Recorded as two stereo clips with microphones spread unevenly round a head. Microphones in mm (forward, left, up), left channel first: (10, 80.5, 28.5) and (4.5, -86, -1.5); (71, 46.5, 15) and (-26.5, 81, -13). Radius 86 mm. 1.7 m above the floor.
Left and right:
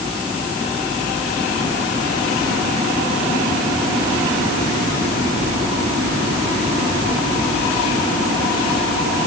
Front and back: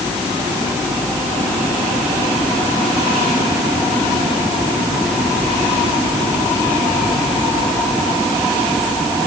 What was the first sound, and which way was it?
Only background noise.